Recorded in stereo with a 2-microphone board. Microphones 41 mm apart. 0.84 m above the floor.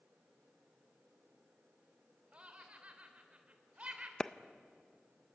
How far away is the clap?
About 0.5 m.